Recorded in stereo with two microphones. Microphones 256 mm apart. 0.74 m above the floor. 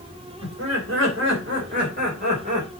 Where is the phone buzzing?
I don't hear a phone buzzing.